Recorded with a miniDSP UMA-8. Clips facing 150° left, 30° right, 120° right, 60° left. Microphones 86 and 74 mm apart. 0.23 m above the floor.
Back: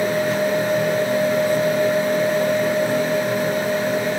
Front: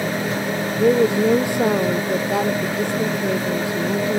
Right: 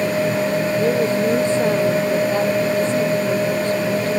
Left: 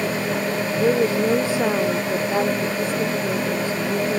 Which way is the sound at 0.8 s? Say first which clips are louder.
Front 3 dB, left 2 dB; 20° right.